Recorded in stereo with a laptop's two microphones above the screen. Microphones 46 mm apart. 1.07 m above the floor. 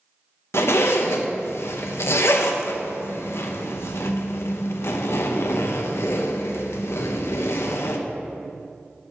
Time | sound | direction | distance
0.5 | a zipper | 65° left (ahead or behind) | 0.7 m